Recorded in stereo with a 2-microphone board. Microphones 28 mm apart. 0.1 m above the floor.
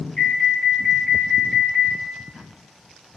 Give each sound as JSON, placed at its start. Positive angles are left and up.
{"t": 0.2, "sound": "an alarm", "side_deg": 30, "distance_m": 1.5}